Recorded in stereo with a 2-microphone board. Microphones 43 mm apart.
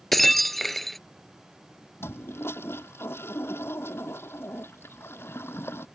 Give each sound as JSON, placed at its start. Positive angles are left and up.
{"t": 0.1, "sound": "breaking glass", "side_deg": 5}
{"t": 2.0, "sound": "a toilet flushing", "side_deg": 70}